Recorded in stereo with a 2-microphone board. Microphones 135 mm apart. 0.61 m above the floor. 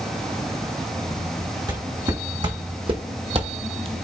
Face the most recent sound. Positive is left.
turn(degrees=-40)  # may be behind; listen again after turning